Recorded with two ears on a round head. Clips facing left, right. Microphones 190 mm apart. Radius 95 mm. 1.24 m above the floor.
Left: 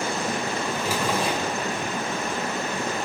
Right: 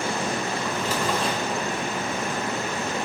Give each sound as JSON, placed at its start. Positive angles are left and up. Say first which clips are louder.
{"t": 0.6, "sound": "a drawer", "louder": "even", "side_deg": 10, "distance_m": 6.0}